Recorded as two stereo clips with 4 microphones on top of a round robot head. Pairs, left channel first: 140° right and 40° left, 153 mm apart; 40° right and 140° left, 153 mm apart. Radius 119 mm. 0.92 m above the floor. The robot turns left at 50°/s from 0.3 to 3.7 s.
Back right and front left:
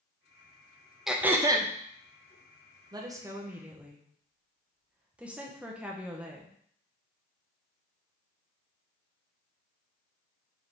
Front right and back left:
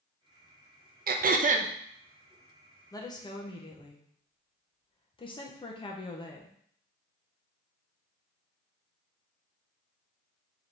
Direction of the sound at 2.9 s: 5° left.